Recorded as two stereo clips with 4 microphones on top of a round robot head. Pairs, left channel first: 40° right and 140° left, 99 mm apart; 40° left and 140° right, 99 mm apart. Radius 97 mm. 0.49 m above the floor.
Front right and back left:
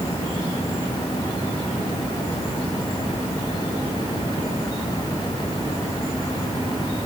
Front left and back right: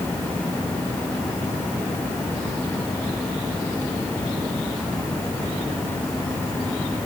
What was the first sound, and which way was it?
Only background noise.